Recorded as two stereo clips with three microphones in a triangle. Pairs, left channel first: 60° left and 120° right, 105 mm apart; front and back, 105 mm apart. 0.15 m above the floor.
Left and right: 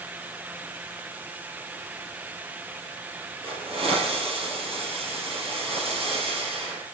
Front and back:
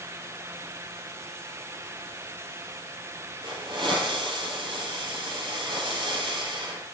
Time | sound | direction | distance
3.4 | a hiss | 140° right | 3.5 m